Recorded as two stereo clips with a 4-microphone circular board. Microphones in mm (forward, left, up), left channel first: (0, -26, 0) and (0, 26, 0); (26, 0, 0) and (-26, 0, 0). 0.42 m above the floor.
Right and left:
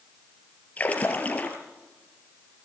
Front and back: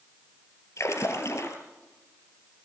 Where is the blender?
I don't hear a blender.